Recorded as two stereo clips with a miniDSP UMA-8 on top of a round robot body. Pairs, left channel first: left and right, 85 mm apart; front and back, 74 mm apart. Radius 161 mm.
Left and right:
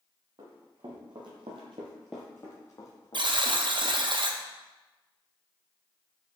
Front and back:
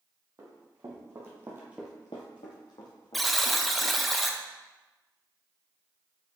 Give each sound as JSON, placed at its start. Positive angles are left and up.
{"t": 0.4, "sound": "running footsteps", "azimuth_deg": -125, "distance_m": 2.5}
{"t": 3.1, "sound": "a buzzer", "azimuth_deg": -90, "distance_m": 0.9}